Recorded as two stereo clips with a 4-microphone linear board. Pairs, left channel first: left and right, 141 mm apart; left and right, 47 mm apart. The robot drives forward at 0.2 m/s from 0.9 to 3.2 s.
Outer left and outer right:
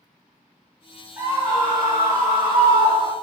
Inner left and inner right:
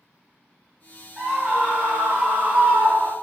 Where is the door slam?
No door slam in this recording.